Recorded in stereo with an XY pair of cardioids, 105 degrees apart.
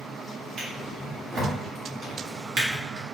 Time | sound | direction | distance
0.6 | a drawer | 60° right | 1.7 m